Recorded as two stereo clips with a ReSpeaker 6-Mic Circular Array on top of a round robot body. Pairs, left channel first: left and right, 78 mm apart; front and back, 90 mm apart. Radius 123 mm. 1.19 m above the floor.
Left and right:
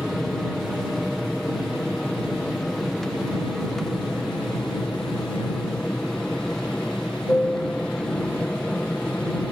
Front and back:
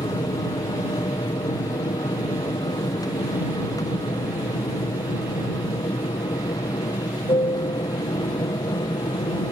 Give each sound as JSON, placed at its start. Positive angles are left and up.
{"t": 0.0, "sound": "an aircraft", "azimuth_deg": 0}